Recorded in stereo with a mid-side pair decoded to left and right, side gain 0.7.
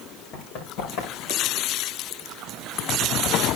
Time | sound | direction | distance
0.3 | running footsteps | 65° left | 4.5 m